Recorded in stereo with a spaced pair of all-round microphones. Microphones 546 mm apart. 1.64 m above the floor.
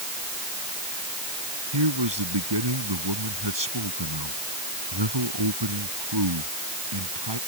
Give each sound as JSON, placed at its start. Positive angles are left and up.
{"t": 1.7, "sound": "a man speaking", "side_deg": -50}